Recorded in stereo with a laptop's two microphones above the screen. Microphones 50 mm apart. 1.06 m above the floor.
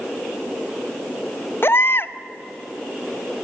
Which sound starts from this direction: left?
A baby crying, at 1.6 s.